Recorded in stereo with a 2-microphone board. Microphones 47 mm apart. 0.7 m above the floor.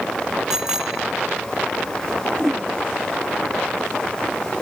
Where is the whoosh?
Centre (ahead or behind).